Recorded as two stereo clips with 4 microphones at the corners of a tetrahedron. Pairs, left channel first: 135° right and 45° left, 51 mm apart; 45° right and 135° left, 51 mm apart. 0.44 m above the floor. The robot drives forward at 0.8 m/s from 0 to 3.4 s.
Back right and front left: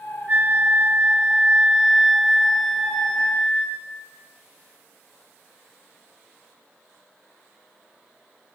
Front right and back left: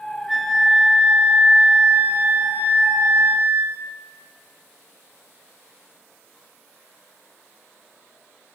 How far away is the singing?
I don't hear singing.